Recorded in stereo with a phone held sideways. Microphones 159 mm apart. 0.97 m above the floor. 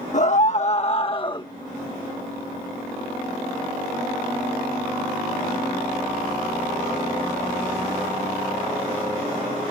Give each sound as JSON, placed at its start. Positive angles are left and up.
{"t": 0.1, "sound": "a scream", "side_deg": 55}